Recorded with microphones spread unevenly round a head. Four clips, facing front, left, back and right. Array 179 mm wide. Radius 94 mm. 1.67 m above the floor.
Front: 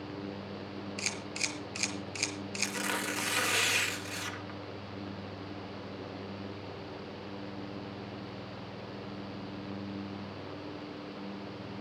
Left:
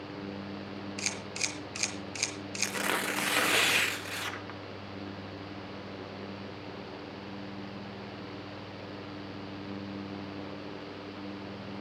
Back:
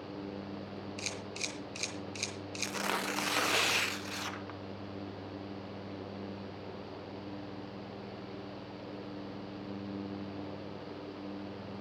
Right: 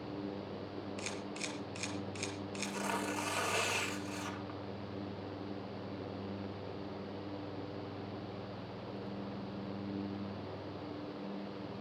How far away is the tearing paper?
About 1.1 m.